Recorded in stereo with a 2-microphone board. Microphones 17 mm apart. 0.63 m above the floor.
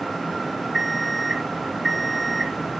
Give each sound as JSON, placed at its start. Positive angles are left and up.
{"t": 0.7, "sound": "an alarm clock", "side_deg": 25, "distance_m": 1.0}